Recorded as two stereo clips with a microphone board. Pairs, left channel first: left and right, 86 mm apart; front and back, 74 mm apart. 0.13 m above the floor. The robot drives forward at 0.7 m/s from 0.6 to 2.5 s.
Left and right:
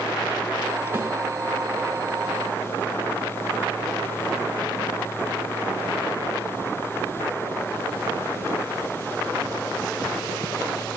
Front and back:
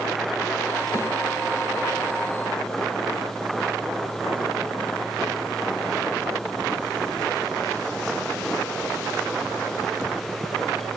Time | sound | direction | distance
0.9 | a snare drum | 30° right | 4 m